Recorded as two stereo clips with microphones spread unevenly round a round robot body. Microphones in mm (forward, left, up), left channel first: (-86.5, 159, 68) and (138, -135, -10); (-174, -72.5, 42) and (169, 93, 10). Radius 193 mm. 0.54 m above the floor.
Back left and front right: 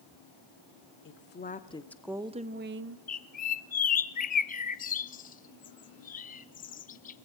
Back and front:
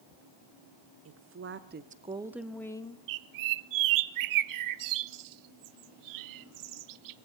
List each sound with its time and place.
1.1 s a woman speaking: 65° left, 1.5 m; by 3.0 s 75° right, 1.4 m
3.1 s a bird: 65° left, 0.6 m